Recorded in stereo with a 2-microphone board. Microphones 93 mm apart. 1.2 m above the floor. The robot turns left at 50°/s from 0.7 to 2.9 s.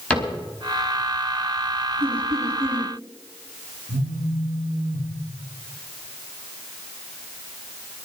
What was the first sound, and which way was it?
A cupboard door, 10° left (ahead or behind).